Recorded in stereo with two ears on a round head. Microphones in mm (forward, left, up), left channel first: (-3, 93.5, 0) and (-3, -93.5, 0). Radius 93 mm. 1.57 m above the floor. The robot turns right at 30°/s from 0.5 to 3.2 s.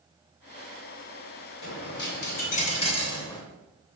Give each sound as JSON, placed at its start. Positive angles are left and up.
{"t": 1.6, "sound": "a dropped coin", "azimuth_deg": 115, "distance_m": 3.0}